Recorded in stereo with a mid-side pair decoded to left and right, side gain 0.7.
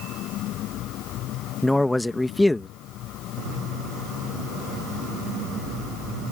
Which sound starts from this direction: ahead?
A man speaking, at 1.6 s.